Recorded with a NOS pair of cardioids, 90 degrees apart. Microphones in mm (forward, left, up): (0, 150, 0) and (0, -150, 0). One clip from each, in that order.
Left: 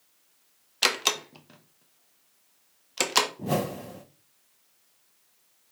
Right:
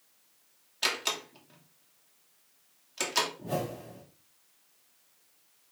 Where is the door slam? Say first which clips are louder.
Left 6 dB; 45° left, 0.9 m.